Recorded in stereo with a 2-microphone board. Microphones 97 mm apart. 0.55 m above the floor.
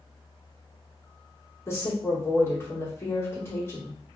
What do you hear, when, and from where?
1.7 s a woman speaking: 25° left (ahead or behind), 1.2 m